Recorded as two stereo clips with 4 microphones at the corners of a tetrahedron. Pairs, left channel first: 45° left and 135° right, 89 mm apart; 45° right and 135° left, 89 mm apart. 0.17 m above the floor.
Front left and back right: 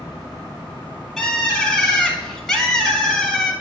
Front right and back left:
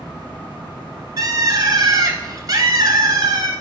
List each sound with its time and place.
1.2 s a bird: 130° left, 0.9 m